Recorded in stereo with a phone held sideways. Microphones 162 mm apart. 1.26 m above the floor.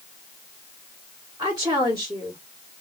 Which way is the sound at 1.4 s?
20° right (ahead or behind).